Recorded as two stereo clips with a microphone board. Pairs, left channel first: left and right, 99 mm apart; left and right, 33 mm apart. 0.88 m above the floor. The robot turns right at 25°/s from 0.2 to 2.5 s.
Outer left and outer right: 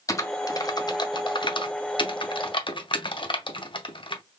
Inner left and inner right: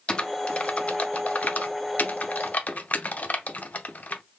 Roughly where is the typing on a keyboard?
Left.